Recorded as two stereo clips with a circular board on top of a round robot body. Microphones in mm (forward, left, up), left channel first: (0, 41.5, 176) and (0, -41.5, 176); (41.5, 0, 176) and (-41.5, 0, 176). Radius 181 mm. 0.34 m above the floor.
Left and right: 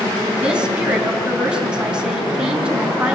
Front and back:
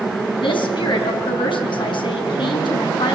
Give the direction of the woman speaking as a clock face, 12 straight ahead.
12 o'clock.